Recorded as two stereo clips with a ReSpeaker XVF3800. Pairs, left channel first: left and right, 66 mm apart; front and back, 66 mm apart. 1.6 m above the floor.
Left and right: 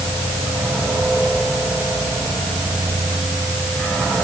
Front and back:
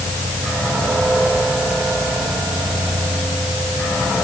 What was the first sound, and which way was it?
Only background noise.